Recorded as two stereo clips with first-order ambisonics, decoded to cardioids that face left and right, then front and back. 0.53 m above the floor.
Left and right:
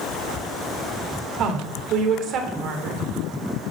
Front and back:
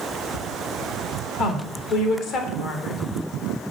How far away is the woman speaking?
About 1.3 m.